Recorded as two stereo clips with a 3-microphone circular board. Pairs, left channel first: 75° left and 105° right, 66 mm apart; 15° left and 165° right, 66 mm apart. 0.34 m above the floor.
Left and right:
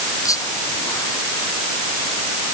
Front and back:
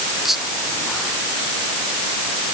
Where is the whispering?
110° left.